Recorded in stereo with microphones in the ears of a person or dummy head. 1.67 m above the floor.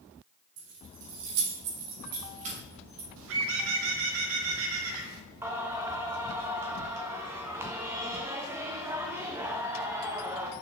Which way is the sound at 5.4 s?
20° right (ahead or behind).